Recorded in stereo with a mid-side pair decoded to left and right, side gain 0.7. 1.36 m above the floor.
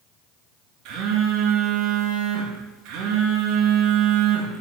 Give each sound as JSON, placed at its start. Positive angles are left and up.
{"t": 0.8, "sound": "a phone buzzing", "azimuth_deg": -65, "distance_m": 2.5}